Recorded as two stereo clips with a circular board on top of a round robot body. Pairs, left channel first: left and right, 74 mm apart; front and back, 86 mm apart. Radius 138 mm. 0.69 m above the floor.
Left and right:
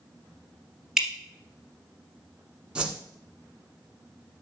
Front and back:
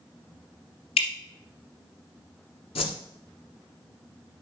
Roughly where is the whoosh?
Ahead.